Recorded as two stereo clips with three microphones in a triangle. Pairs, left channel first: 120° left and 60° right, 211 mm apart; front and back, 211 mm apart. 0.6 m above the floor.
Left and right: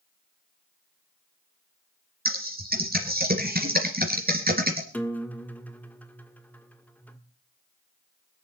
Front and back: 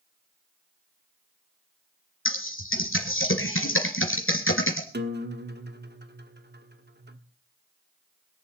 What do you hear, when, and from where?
2.2 s typing on a keyboard: 15° right, 3 m
4.9 s a guitar: 160° right, 1.4 m